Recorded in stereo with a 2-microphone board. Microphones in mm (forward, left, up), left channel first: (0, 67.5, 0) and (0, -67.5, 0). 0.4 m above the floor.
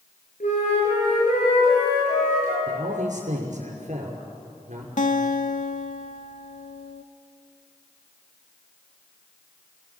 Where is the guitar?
70° left (ahead or behind), 0.8 m.